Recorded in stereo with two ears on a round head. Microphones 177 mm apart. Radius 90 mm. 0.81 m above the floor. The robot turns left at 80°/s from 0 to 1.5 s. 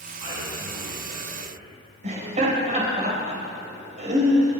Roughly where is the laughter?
Right.